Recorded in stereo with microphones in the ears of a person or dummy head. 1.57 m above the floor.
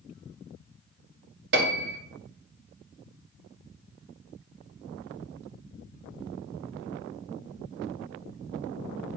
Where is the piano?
60° right (ahead or behind), 1.4 m.